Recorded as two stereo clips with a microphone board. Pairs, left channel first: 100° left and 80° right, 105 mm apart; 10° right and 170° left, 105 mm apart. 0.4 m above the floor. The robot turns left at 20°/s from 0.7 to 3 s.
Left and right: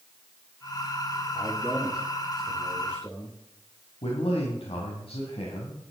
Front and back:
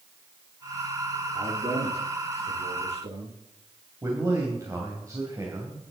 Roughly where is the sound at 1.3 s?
Behind right.